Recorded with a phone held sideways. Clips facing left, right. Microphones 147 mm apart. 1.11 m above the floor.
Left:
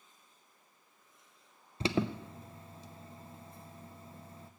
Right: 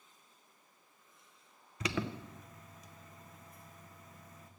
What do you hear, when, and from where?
1.8 s an alarm: 30° left (ahead or behind), 0.6 m